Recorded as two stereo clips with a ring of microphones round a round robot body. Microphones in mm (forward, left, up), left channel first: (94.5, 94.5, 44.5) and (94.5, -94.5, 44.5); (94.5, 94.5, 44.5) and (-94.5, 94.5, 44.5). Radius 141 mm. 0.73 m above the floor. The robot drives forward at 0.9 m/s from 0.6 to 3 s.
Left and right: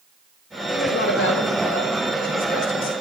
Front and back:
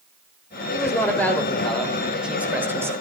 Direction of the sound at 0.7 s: 75° left.